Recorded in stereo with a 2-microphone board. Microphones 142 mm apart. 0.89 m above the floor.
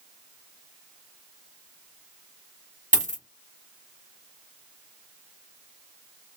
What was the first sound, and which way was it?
A dropped coin, 60° right (ahead or behind).